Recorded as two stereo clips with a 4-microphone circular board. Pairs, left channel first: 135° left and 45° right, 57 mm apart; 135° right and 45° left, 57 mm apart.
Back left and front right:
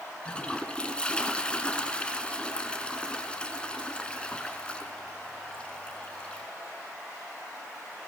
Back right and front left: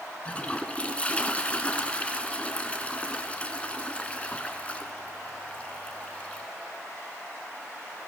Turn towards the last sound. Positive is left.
turn(degrees=-170)